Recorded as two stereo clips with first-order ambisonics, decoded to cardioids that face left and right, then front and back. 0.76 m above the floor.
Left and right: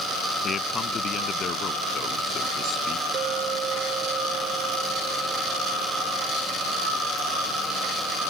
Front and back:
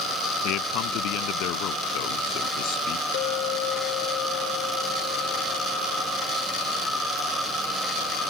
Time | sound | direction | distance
0.4 | a man speaking | 30° left | ?
3.1 | a clink | 30° right | ?